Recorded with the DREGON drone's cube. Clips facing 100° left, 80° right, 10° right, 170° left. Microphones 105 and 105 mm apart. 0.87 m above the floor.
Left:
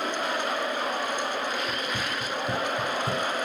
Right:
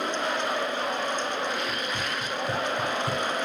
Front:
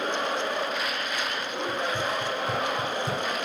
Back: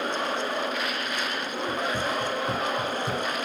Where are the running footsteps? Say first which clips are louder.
Even, back 1 dB; 135° left, 1.3 m; by 3.3 s 70° left, 1.3 m.